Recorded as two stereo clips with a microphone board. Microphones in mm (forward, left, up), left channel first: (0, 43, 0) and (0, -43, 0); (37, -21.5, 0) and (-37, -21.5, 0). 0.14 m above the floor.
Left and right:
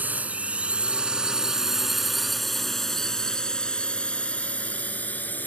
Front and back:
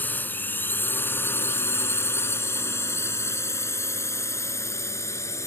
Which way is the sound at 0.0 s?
40° right.